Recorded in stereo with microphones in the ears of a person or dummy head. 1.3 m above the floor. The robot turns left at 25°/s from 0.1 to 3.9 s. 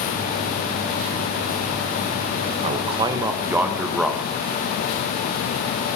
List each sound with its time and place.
2.6 s a man speaking: 150° right, 1.1 m; by 4.2 s straight behind, 1.1 m